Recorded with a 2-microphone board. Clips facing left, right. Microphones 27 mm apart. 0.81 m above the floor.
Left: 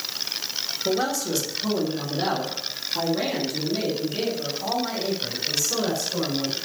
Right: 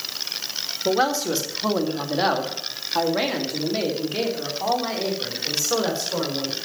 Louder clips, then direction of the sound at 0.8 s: Right 4 dB; 35° right (ahead or behind).